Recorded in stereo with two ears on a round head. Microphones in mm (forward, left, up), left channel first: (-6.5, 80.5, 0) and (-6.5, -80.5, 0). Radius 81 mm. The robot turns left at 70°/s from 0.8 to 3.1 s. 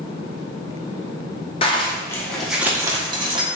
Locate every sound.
1.6 s a zipper: 60° left, 0.7 m; by 3.5 s 45° right, 0.7 m